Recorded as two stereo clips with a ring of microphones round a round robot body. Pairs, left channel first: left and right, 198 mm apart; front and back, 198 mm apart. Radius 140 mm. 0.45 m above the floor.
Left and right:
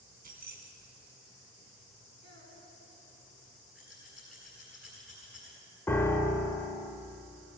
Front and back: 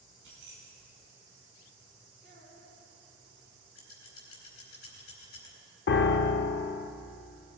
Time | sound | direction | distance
0.2 | keys jangling | 130° right | 2.5 m
2.2 | a child speaking | 120° right | 4 m
3.8 | scissors | 5° right | 4 m
5.9 | a piano | 10° left | 0.6 m